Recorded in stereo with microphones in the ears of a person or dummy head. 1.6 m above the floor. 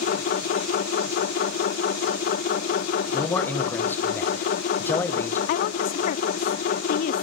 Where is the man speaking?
15° left (ahead or behind), 1.6 m.